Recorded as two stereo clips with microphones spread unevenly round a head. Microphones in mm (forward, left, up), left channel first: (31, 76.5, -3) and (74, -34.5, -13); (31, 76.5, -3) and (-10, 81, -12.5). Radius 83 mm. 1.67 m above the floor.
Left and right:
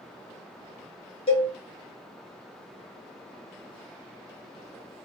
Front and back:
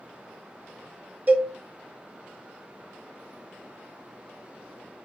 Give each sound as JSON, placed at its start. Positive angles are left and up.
{"t": 1.3, "sound": "a cowbell", "azimuth_deg": 120, "distance_m": 0.8}